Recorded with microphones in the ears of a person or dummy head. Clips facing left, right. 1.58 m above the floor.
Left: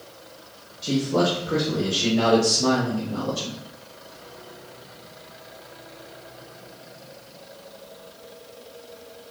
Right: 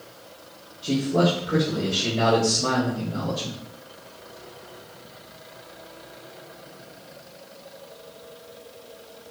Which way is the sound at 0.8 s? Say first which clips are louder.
Even; 85° left.